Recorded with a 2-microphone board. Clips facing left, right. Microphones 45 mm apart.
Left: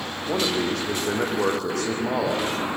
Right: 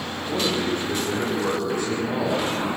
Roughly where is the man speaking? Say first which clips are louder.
Even; left.